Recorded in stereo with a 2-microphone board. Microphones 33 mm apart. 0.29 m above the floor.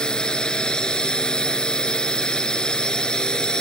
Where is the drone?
20° left (ahead or behind).